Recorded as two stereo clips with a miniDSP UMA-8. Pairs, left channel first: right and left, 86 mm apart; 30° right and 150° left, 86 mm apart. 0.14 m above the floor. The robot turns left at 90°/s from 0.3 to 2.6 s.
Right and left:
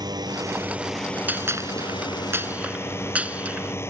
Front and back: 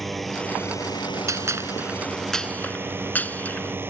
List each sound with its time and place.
0.0 s a drone: 60° left; by 3.9 s 150° right
1.3 s a gunshot: 145° left; by 3.8 s 25° left